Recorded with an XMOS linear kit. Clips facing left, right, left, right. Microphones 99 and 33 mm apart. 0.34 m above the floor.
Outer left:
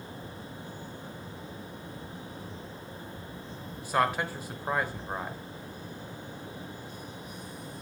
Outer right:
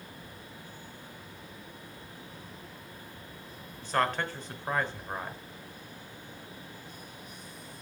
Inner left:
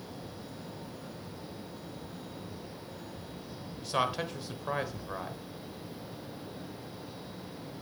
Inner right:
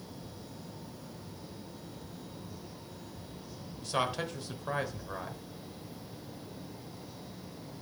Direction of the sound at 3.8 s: 10° left (ahead or behind).